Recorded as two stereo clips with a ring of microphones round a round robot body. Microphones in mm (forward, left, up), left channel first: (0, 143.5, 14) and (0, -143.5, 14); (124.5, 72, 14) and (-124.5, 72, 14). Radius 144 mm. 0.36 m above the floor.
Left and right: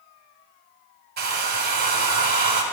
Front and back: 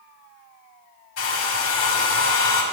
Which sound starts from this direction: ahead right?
A hair dryer, at 1.2 s.